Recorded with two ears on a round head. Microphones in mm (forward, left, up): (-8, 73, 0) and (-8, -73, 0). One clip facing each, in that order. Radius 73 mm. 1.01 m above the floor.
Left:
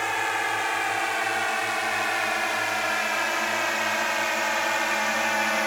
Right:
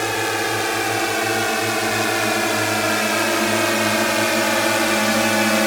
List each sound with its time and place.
0.0 s a drone: 55° right (ahead or behind); by 5.7 s 65° right (ahead or behind)